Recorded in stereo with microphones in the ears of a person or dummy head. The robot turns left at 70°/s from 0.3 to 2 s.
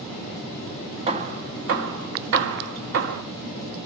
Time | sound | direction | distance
1.1 | hammering | 25° right (ahead or behind) | 1.3 m